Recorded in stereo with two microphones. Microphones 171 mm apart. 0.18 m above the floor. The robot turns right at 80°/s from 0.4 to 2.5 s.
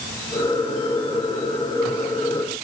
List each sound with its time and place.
Only background noise.